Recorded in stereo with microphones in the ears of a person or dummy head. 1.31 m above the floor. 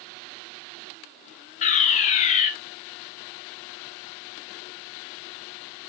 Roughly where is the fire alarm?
Left.